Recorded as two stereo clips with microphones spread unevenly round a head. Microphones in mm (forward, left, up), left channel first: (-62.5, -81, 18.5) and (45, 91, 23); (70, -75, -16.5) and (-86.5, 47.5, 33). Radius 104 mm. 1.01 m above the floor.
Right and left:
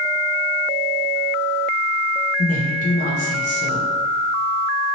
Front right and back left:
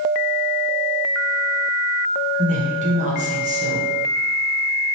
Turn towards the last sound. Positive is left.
turn(degrees=-160)